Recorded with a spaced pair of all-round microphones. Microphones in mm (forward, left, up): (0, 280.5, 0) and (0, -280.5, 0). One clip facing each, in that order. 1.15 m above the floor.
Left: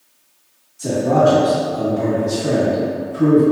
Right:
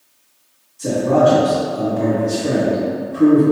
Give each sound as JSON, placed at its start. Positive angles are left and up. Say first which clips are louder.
{"t": 0.8, "sound": "a man speaking", "louder": "right 1 dB", "side_deg": 10, "distance_m": 1.6}